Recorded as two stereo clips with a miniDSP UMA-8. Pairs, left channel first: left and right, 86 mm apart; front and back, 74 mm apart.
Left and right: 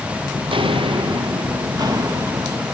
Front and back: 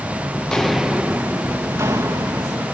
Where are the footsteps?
70° right, 0.8 m; by 2.6 s 140° right, 1.8 m.